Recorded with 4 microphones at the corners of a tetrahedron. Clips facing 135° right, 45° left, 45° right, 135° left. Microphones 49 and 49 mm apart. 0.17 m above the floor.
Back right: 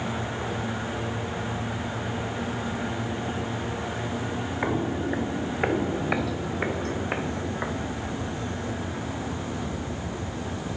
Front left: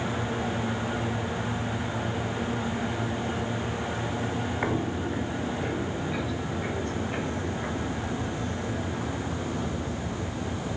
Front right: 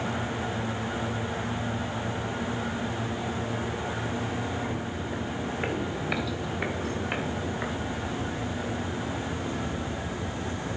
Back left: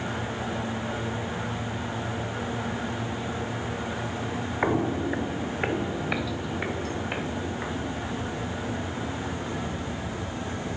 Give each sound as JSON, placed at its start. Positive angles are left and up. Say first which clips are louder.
{"t": 4.6, "sound": "footsteps", "louder": "back right 4 dB, back left 7 dB", "azimuth_deg": 140, "distance_m": 0.7}